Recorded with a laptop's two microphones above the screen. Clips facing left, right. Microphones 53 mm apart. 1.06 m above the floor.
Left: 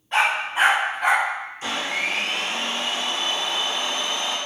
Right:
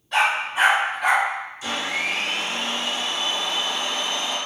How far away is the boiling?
No boiling in this recording.